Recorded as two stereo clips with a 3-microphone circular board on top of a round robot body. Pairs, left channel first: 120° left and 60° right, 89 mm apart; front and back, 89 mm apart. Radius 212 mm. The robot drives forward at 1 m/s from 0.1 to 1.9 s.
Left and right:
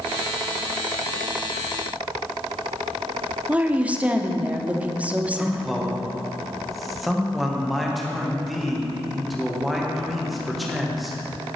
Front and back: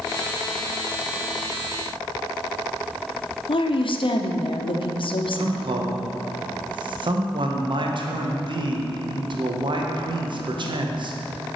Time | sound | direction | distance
3.5 | a woman speaking | 15° left | 0.9 m
5.3 | a man speaking | 150° right | 1.1 m